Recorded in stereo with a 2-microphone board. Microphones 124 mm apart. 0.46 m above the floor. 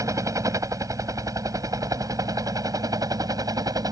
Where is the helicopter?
25° right (ahead or behind); by 3.9 s 30° right (ahead or behind).